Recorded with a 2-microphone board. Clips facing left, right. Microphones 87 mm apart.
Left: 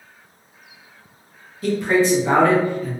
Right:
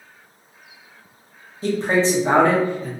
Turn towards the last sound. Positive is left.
turn(degrees=-25)  # may be behind; listen again after turning